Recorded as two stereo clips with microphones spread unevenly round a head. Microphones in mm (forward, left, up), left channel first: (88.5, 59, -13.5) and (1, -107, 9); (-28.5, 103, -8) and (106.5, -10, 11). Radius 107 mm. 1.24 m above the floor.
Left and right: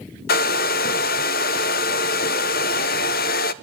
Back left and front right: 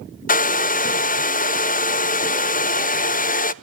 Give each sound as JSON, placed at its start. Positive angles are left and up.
{"t": 0.3, "sound": "a hair dryer", "azimuth_deg": 105, "distance_m": 0.5}